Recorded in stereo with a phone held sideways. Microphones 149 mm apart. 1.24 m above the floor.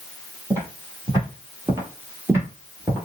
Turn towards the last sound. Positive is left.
turn(degrees=-15)  # may be behind; listen again after turning